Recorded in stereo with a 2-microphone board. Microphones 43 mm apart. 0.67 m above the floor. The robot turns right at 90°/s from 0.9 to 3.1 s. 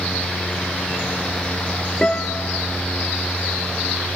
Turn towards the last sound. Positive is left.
turn(degrees=115)